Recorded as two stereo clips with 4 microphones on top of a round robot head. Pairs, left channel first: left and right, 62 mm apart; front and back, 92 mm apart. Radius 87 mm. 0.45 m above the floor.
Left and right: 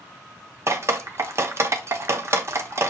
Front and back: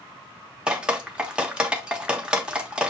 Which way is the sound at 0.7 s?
105° right.